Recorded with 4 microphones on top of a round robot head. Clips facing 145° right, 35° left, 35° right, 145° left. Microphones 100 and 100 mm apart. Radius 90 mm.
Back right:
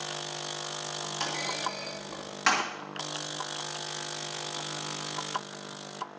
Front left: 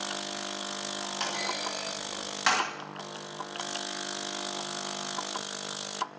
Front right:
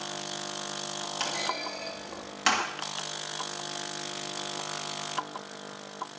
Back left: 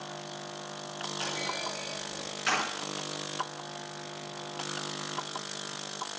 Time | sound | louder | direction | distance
1.2 | a clunk | back right 1 dB, front right 3 dB | 50° right | 2.5 m